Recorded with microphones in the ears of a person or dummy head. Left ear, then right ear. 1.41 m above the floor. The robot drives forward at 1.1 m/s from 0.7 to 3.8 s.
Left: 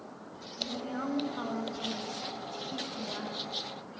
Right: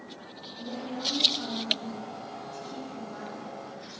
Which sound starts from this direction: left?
A woman speaking, at 0.6 s.